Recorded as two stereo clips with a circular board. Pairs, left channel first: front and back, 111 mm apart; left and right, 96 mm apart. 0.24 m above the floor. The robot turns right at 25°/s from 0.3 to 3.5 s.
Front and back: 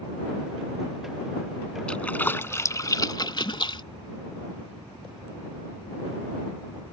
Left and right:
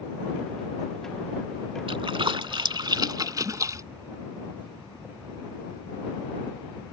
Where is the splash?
80° right; by 3.8 s 40° right.